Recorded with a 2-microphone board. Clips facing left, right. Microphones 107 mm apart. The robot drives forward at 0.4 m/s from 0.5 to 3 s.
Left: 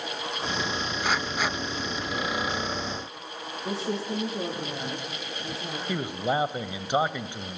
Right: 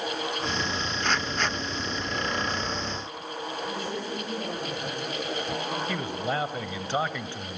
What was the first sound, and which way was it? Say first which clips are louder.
A woman speaking: left 7 dB; 80° left.